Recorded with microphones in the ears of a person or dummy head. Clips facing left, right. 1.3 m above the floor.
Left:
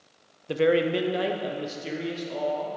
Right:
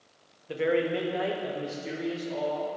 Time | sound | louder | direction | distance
0.5 | a man speaking | left 4 dB | 50° left (ahead or behind) | 0.6 m